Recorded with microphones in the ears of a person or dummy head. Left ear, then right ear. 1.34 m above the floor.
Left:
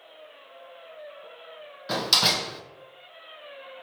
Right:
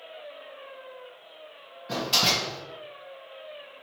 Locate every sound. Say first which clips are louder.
1.9 s a door slam: left 2 dB; 45° left (ahead or behind), 0.7 m